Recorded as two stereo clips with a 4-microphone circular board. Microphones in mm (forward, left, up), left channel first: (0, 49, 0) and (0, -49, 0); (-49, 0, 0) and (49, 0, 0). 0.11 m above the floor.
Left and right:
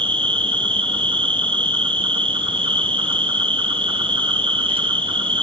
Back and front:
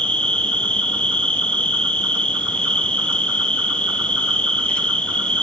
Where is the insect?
100° right, 2 m.